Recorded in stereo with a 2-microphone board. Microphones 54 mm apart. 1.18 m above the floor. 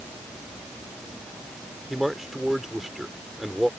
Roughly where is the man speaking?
Centre.